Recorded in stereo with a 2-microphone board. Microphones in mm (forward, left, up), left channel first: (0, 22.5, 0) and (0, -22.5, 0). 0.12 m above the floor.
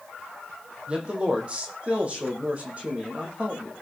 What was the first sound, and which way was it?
A man speaking, 25° right (ahead or behind).